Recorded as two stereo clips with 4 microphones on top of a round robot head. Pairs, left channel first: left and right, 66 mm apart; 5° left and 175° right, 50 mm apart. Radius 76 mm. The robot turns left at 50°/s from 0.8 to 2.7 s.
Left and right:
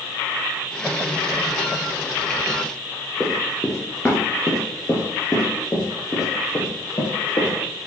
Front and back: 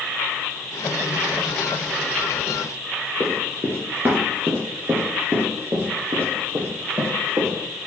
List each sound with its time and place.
3.2 s running footsteps: 175° right, 1.7 m; by 7.5 s 145° left, 3.5 m